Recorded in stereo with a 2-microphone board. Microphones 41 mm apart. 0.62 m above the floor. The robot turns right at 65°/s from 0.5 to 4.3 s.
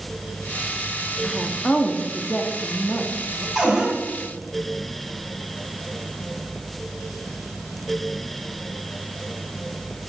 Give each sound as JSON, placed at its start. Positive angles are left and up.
{"t": 1.2, "sound": "a woman speaking", "azimuth_deg": 5, "distance_m": 1.2}
{"t": 3.5, "sound": "a cupboard door", "side_deg": -5, "distance_m": 5.0}